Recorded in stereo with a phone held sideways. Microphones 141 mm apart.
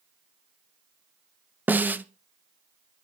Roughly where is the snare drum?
Centre.